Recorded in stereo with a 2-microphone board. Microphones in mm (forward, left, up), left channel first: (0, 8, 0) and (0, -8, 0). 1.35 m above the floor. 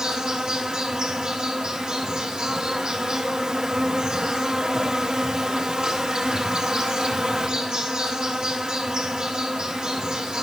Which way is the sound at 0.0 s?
60° right (ahead or behind).